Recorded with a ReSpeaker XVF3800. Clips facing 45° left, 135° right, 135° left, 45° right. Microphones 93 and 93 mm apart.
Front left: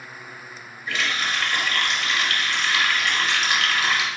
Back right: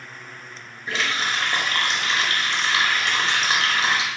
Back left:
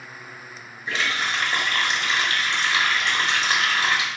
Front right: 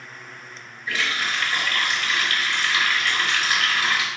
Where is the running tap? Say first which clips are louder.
Back right 1 dB, back left 1 dB; 175° right, 0.7 m.